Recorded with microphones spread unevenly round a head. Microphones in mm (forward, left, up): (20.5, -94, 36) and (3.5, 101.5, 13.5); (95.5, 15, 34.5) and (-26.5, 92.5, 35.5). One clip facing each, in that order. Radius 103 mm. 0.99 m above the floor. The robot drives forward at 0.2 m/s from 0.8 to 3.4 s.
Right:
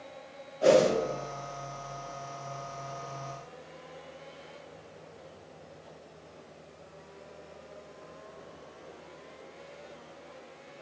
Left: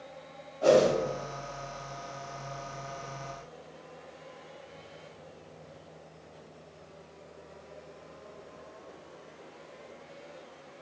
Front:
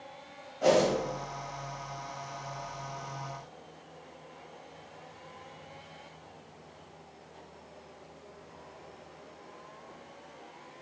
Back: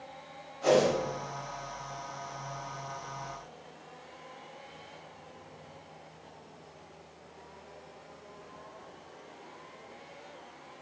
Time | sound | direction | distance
0.6 | a whoosh | 20° right | 0.9 m